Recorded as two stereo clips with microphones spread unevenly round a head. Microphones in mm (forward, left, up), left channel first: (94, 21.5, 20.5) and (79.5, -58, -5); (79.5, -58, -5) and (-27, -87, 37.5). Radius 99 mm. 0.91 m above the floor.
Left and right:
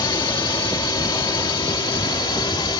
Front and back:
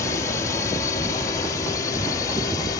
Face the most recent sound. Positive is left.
turn(degrees=60)